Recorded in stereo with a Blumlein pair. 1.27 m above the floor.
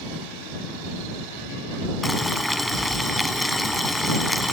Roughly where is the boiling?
Ahead.